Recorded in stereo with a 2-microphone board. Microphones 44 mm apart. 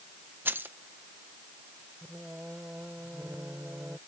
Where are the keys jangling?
55° right (ahead or behind).